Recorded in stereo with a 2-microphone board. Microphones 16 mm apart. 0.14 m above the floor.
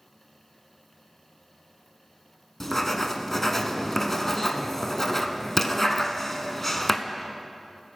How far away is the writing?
About 0.8 m.